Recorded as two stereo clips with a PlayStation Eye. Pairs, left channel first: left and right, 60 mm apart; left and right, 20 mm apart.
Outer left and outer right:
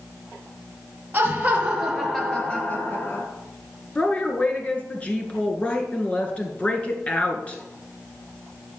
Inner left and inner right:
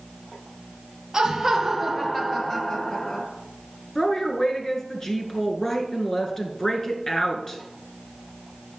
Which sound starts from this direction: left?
A woman speaking, at 4.0 s.